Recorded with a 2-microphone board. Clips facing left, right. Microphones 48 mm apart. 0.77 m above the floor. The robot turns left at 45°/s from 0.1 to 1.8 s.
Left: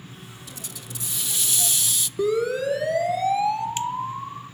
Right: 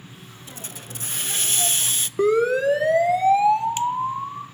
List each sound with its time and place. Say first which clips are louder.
0.5 s a hiss: right 4 dB; 55° right, 0.6 m; by 2.1 s 115° right, 0.6 m
2.2 s a siren: right 4 dB; 45° right (ahead or behind), 2 m; by 4.4 s 15° right (ahead or behind), 3.5 m